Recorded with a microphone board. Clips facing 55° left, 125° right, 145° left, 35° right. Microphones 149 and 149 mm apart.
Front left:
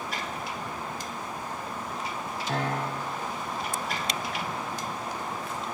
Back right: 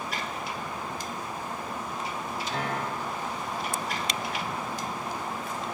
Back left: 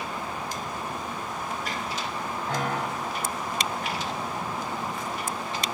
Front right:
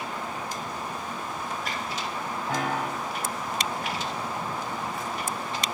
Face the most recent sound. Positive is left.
turn(degrees=50)